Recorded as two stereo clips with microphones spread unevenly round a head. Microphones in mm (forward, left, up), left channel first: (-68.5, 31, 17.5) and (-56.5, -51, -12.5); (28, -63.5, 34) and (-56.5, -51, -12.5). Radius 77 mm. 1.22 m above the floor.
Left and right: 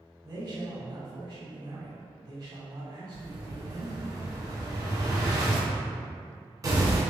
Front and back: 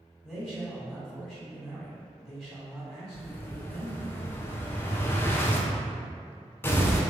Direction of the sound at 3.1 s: 90° right.